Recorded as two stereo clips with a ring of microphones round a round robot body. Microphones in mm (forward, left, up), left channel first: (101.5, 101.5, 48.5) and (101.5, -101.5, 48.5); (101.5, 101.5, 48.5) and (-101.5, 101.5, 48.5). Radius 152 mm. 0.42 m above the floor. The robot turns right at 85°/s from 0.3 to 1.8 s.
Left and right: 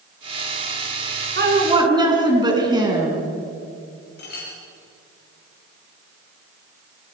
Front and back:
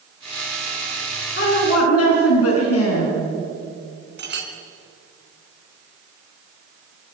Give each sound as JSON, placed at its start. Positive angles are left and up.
{"t": 1.4, "sound": "a woman speaking", "azimuth_deg": -55, "distance_m": 5.0}
{"t": 4.2, "sound": "a clink", "azimuth_deg": 145, "distance_m": 3.5}